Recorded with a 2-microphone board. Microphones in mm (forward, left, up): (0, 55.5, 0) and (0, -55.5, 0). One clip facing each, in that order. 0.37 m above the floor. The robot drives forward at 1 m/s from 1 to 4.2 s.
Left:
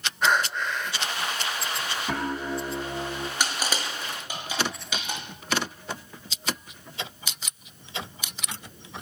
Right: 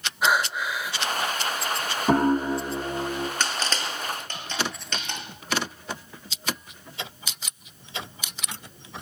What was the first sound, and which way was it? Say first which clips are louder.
Breathing: right 1 dB; 10° right (ahead or behind).